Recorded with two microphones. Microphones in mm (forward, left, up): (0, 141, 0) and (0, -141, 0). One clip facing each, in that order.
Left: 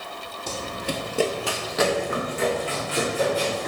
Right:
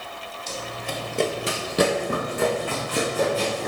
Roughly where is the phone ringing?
I don't hear a phone ringing.